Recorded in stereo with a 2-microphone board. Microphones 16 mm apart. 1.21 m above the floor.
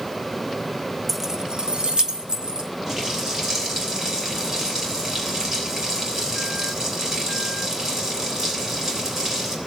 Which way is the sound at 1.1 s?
10° left (ahead or behind).